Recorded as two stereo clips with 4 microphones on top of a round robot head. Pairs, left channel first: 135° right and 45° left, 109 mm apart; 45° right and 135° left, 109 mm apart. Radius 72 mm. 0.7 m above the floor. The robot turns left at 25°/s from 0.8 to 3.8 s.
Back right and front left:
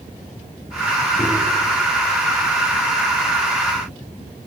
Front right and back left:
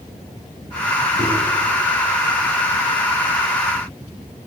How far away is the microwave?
About 7 m.